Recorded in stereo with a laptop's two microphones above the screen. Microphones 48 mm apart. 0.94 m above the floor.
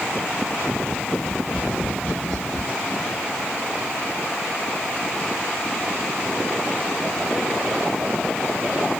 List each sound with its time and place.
1.2 s tapping: 35° left (ahead or behind), 1.0 m